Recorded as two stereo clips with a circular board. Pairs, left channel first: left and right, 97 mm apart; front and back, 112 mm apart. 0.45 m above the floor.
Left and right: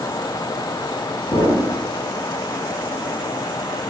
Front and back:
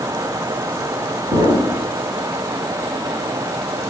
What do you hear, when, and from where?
1.3 s an explosion: 110° left, 1.8 m